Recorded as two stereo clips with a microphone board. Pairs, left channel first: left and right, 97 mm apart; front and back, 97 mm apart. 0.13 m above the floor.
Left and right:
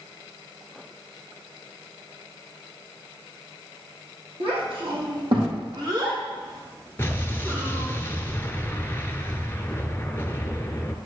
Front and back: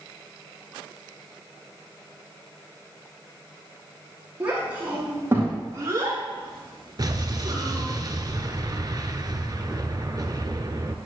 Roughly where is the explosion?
Behind left.